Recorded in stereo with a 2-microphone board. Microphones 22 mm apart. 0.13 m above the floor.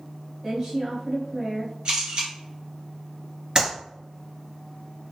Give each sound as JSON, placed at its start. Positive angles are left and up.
{"t": 0.4, "sound": "a woman speaking", "side_deg": -30, "distance_m": 1.7}
{"t": 1.9, "sound": "a camera shutter", "side_deg": -50, "distance_m": 1.8}
{"t": 3.5, "sound": "a clap", "side_deg": -35, "distance_m": 1.8}